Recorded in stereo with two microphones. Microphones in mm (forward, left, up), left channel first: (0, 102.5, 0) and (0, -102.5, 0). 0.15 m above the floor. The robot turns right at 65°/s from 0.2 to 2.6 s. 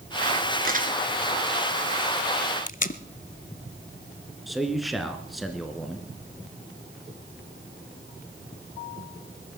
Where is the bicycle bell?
I don't hear a bicycle bell.